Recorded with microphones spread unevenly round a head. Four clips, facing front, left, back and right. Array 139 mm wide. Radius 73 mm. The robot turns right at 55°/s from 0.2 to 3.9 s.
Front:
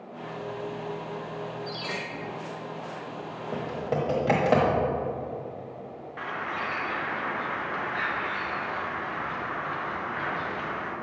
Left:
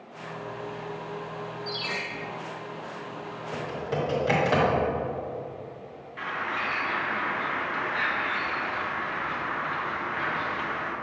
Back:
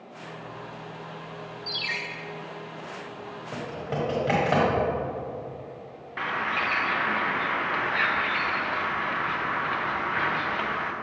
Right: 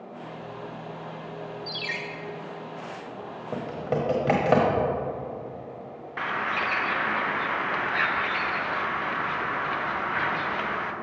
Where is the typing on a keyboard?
75° right, 1.1 m; by 4.8 s 55° right, 1.1 m.